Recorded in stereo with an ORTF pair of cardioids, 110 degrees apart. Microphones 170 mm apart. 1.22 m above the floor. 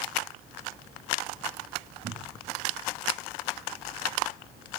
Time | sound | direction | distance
2.0 | a cupboard door | 45° right | 1.5 m